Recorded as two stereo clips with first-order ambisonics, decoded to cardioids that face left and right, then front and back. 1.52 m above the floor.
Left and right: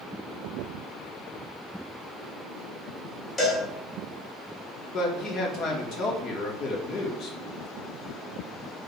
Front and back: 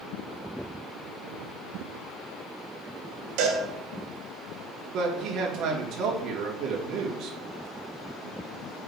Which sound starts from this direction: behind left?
A man speaking, at 4.9 s.